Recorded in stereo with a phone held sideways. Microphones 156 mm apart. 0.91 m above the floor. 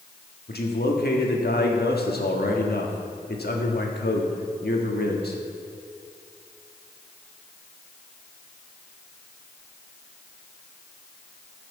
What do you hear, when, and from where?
0.5 s a man speaking: 75° left (ahead or behind), 1.7 m